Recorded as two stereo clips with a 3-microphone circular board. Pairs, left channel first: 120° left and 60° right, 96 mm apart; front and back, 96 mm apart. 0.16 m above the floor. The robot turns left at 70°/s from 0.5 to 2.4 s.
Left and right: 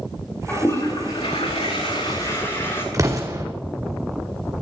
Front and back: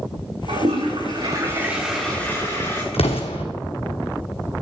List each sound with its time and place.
0.5 s a toilet flushing: 165° right, 6 m; by 2.8 s 60° left, 6 m
2.9 s an explosion: 5° right, 2 m